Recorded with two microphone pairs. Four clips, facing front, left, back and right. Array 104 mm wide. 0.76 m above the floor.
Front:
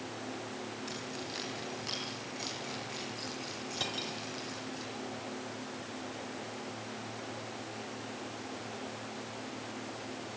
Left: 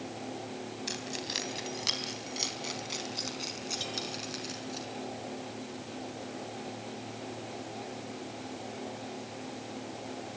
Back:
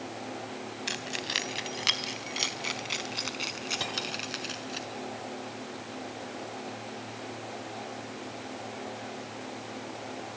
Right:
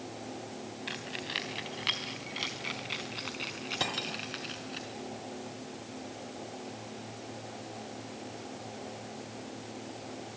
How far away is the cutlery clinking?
About 2.5 m.